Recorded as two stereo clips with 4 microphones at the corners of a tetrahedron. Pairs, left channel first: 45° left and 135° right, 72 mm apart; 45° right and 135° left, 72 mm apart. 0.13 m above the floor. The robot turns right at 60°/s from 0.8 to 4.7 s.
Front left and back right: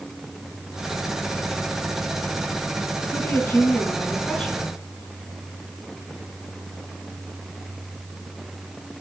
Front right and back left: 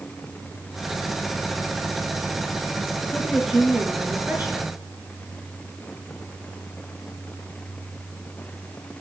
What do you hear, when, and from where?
3.1 s a woman speaking: 35° left, 1.2 m; by 4.8 s 130° left, 1.2 m